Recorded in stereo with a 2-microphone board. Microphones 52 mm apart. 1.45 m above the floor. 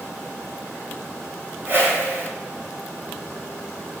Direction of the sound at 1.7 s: 45° right (ahead or behind).